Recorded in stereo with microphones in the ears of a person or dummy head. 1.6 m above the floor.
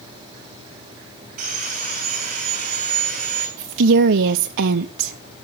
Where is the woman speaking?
65° right (ahead or behind), 0.5 m.